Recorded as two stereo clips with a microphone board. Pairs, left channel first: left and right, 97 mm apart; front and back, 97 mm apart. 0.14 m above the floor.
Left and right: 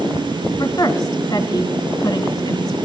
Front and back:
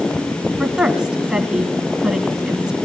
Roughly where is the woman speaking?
Left.